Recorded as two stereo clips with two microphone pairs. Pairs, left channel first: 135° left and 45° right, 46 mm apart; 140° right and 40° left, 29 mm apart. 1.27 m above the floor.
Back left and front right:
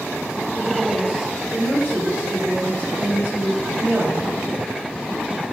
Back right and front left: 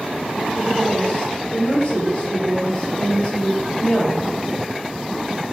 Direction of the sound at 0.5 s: 95° right.